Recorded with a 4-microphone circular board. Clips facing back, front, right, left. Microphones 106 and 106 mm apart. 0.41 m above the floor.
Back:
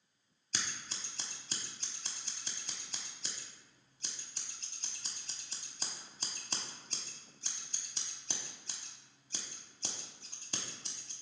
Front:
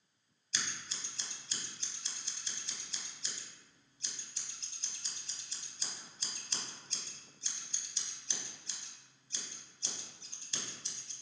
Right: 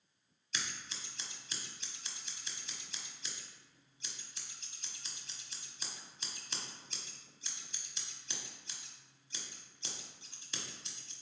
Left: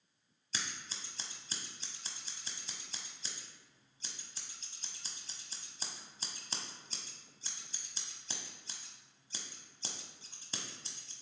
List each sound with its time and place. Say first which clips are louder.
0.5 s scissors: even, even; 145° left, 1.0 m